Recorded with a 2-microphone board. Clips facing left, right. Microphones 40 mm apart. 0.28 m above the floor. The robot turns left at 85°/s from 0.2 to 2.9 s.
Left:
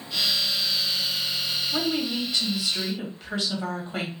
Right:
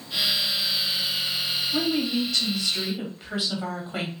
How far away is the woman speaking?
About 1.2 m.